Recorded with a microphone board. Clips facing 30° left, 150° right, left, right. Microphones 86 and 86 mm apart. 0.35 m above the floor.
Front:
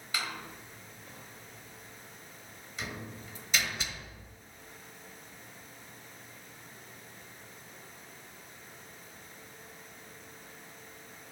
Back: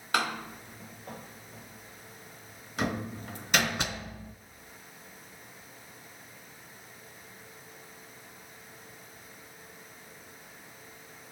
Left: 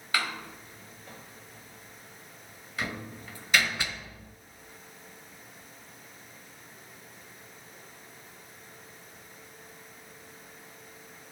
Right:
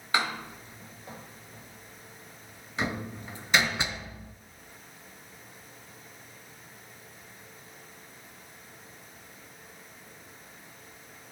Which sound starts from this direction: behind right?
A door slam, at 0.1 s.